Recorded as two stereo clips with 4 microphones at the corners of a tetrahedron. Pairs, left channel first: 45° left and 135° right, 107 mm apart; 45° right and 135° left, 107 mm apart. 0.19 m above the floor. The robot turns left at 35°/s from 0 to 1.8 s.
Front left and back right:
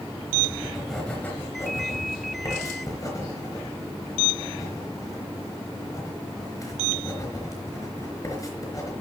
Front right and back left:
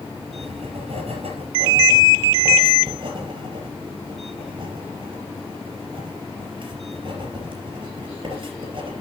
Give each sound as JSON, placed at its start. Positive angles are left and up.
{"t": 0.3, "sound": "writing", "azimuth_deg": 150, "distance_m": 4.0}